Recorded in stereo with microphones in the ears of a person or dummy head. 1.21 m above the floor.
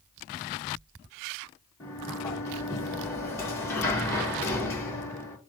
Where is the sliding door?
15° left (ahead or behind), 1.5 m.